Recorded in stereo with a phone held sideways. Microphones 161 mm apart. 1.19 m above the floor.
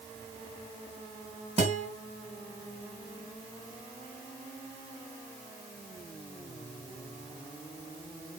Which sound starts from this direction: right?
A guitar, at 1.6 s.